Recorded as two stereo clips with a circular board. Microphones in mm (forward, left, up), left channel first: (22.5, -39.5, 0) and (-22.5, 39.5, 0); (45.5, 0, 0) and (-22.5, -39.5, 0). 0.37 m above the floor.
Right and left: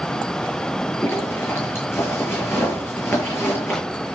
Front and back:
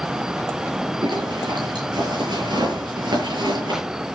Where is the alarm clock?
I don't hear an alarm clock.